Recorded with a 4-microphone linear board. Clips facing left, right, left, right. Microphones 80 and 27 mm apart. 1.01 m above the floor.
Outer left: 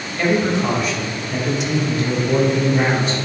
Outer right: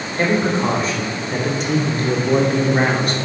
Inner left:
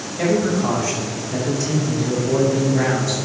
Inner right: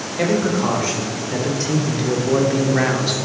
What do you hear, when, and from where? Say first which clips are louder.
0.2 s a man speaking: even, even; 30° right (ahead or behind), 4 m; by 3.2 s 60° right (ahead or behind), 2.5 m